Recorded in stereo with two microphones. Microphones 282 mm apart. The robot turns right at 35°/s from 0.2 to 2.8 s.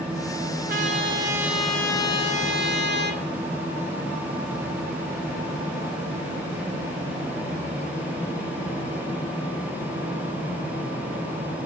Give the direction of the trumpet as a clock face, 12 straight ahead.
1 o'clock.